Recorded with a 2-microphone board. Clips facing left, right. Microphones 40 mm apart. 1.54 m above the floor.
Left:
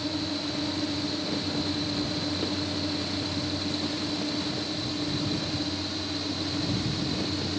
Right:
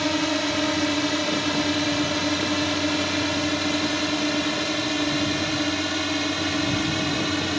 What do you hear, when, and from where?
0.0 s a drone: 70° right (ahead or behind); by 7.6 s 65° right (ahead or behind)